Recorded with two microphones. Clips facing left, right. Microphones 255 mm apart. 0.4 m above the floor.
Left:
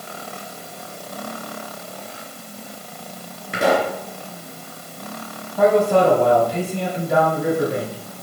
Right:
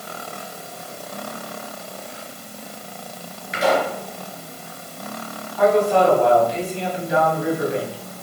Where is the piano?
I don't hear a piano.